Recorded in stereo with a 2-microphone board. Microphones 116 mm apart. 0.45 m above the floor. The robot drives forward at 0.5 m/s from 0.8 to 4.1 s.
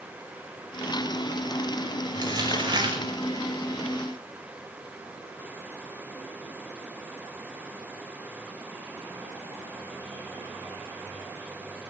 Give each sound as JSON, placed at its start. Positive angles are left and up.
{"t": 2.1, "sound": "crumpling", "side_deg": -40, "distance_m": 6.0}